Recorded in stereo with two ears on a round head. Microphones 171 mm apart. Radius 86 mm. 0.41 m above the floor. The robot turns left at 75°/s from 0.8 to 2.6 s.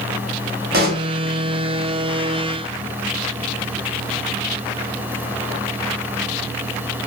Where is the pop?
50° right (ahead or behind), 0.8 m; by 1.1 s 55° right (ahead or behind), 0.8 m.